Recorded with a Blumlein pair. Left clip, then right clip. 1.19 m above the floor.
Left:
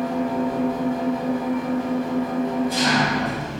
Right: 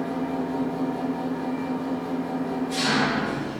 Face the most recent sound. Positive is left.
turn(degrees=65)